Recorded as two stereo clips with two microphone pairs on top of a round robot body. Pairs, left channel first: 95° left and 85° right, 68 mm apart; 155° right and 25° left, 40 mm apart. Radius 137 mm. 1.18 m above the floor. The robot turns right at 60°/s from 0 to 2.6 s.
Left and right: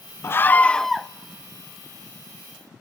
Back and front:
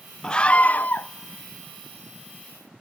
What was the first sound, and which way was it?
A scream, 140° left.